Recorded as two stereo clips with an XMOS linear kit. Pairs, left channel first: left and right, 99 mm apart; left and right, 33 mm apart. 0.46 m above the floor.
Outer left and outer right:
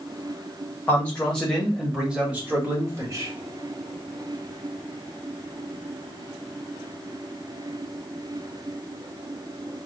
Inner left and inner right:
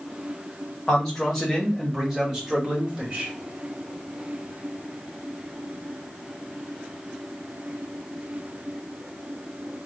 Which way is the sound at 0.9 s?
15° left (ahead or behind).